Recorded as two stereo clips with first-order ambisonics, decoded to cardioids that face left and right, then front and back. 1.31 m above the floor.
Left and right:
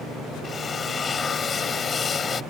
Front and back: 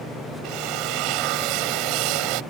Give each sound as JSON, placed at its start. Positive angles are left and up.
{"t": 0.4, "sound": "a drill", "azimuth_deg": 160}